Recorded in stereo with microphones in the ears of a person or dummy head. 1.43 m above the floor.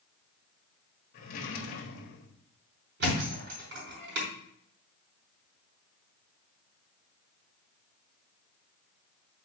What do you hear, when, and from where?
1.1 s a drawer: 55° left (ahead or behind), 1.5 m
3.0 s a thud: 55° right (ahead or behind), 4 m